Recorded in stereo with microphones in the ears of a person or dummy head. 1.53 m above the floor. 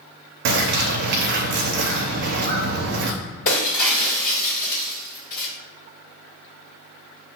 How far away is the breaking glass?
About 1.4 m.